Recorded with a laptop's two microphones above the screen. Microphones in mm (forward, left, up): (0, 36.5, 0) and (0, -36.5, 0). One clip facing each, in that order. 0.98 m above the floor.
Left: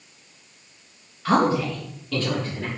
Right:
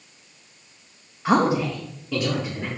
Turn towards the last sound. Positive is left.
turn(degrees=-10)  # may be behind; listen again after turning